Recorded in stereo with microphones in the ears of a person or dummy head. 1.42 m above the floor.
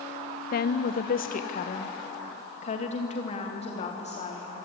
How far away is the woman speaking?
About 0.8 m.